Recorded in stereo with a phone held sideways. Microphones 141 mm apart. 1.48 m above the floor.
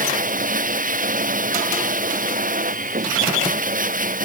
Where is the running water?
75° right (ahead or behind).